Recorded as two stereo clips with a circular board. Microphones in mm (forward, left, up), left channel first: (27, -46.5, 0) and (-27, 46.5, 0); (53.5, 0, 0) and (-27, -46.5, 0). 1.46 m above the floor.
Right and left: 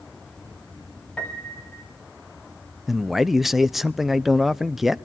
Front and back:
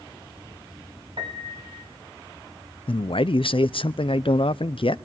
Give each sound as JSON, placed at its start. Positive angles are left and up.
{"t": 1.2, "sound": "a piano", "azimuth_deg": -140, "distance_m": 2.5}
{"t": 2.9, "sound": "a man speaking", "azimuth_deg": 35, "distance_m": 0.5}